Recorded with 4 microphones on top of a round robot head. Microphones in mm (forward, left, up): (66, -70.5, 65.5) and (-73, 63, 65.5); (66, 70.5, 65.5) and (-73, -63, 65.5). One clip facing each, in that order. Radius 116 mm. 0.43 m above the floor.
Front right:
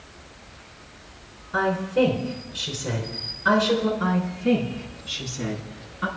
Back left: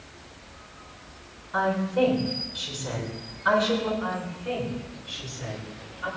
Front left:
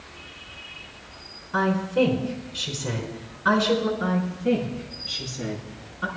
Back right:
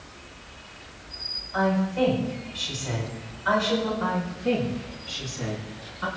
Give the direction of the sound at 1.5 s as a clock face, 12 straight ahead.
11 o'clock.